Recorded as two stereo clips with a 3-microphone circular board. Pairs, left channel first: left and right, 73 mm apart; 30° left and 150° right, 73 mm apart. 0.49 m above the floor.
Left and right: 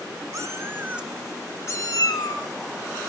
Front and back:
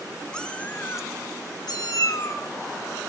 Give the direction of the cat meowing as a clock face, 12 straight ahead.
2 o'clock.